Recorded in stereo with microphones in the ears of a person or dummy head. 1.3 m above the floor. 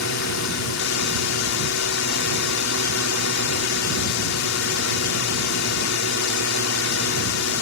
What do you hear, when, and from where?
0.0 s a drone: 70° left (ahead or behind)